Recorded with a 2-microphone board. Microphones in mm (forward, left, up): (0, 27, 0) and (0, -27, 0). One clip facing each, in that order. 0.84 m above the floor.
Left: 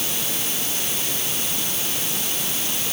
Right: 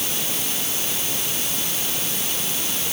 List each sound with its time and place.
Only background noise.